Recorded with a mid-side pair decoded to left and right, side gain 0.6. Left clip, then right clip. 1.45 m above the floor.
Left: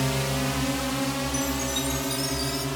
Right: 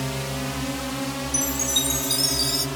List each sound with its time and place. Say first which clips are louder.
0.0 s a drone: left 2 dB; 15° left; by 2.8 s straight ahead
1.3 s a chime: right 4 dB; 45° right